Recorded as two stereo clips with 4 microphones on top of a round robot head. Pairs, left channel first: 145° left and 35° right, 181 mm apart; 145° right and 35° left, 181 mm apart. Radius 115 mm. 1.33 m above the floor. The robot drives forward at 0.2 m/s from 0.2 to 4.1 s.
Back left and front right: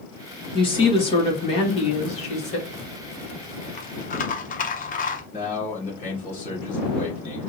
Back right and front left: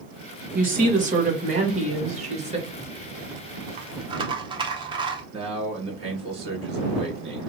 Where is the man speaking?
95° left, 2 m.